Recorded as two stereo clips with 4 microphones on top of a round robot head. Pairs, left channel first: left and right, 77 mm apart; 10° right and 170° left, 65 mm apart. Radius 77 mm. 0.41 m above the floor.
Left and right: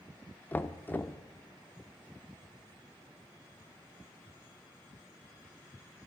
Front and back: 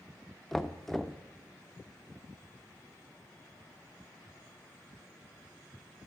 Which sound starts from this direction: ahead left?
Knocking, at 0.5 s.